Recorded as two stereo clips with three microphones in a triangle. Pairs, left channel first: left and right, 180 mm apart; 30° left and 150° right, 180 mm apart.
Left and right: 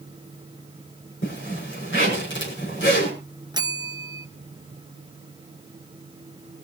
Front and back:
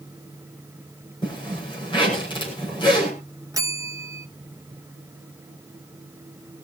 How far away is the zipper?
About 6 m.